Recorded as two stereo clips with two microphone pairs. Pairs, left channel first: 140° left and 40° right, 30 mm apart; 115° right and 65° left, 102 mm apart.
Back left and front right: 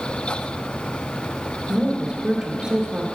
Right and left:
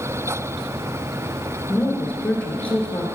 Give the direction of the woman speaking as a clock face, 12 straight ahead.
2 o'clock.